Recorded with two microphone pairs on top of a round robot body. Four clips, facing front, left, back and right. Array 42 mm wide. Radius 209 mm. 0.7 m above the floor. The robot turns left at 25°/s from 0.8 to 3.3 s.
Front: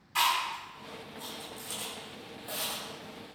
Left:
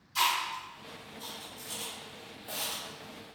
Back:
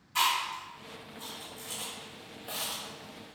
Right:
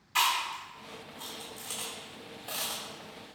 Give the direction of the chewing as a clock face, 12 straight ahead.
3 o'clock.